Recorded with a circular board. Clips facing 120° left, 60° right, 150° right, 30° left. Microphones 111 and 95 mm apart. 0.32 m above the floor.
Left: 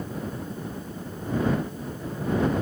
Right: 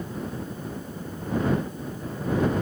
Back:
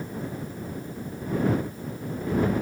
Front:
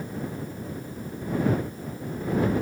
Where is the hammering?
I don't hear hammering.